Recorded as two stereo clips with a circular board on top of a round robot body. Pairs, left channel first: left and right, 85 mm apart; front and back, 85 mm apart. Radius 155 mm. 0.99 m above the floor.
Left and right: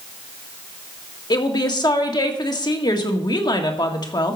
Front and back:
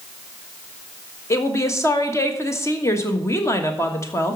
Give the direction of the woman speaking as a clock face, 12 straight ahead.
10 o'clock.